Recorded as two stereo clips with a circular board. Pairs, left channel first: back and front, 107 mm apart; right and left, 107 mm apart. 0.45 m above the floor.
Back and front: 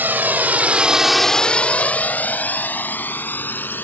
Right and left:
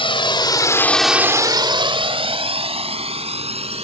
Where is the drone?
70° right; by 3.9 s 110° left.